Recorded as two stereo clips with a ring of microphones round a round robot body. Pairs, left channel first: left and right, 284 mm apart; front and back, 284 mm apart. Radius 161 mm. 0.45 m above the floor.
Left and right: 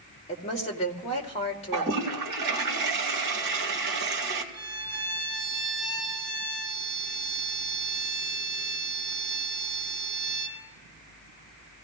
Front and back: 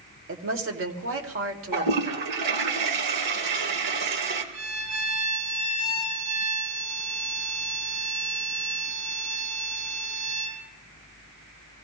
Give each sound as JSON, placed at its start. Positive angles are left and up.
{"t": 0.3, "sound": "a woman speaking", "azimuth_deg": 155, "distance_m": 2.0}
{"t": 1.7, "sound": "a toilet flushing", "azimuth_deg": -150, "distance_m": 2.0}
{"t": 4.5, "sound": "a violin", "azimuth_deg": -150, "distance_m": 2.5}